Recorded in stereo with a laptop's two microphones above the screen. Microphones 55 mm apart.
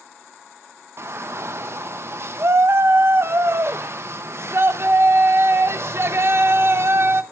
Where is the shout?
50° right (ahead or behind), 0.9 m.